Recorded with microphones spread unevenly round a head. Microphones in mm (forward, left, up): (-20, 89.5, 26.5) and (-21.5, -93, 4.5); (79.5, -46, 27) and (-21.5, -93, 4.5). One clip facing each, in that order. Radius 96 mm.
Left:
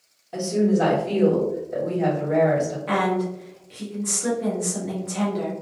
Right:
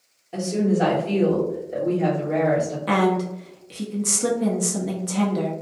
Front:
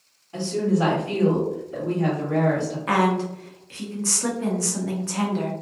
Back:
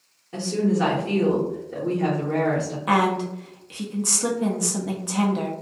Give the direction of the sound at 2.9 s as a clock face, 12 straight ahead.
3 o'clock.